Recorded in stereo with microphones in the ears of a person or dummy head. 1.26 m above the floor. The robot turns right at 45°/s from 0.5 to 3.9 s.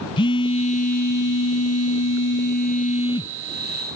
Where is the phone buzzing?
30° left; by 3.4 s 160° left.